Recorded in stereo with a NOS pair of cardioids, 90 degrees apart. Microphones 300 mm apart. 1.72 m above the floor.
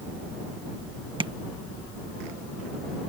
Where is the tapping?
15° right.